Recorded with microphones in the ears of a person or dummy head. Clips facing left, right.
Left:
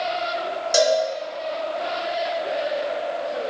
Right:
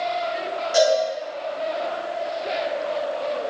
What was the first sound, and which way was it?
A cowbell, 50° left (ahead or behind).